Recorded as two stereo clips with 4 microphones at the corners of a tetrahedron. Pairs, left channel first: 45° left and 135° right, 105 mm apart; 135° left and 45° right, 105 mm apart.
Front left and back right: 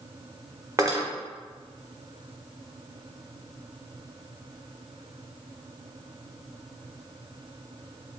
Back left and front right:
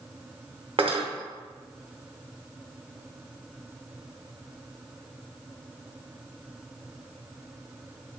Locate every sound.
0.8 s cutlery clinking: 75° right, 0.8 m